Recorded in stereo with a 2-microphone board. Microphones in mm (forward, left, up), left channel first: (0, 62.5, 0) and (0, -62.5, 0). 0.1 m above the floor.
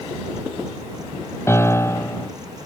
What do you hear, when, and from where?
1.5 s a piano: 20° left (ahead or behind)